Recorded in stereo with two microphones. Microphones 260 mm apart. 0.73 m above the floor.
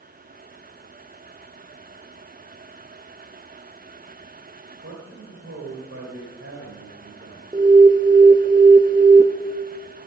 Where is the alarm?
15° right (ahead or behind), 0.6 m.